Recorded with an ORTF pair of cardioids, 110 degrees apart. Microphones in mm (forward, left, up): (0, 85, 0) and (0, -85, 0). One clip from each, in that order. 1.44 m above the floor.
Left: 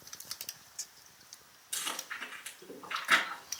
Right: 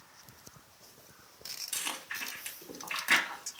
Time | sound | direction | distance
1.7 | chewing | 30° right | 3.5 m